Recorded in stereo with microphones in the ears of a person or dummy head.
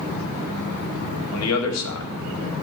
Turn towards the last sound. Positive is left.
turn(degrees=90)